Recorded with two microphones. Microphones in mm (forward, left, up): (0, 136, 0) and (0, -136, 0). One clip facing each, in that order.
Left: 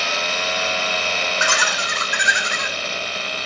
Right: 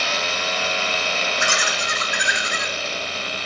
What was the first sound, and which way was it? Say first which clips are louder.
Laughter: left 1 dB; 85° left.